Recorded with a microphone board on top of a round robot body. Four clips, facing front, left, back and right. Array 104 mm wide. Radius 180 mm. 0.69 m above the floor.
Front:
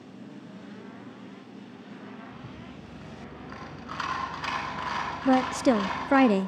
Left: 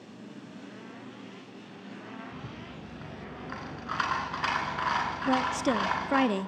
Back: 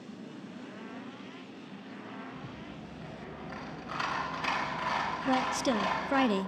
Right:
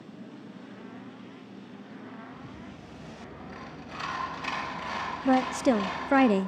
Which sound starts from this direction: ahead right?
A woman speaking, at 5.2 s.